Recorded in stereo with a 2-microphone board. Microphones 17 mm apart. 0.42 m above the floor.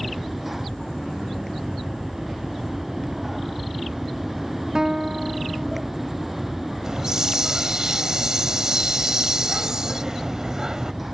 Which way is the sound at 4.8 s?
30° right (ahead or behind).